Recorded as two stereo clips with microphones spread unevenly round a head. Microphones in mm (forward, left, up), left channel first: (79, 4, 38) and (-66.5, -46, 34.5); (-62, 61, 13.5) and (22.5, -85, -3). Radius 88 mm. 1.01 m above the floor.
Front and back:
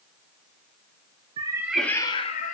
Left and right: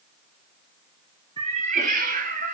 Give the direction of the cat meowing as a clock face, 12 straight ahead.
4 o'clock.